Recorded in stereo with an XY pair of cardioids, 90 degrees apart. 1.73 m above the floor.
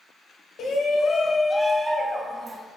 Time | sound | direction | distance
0.6 | a shout | 70° left | 0.7 m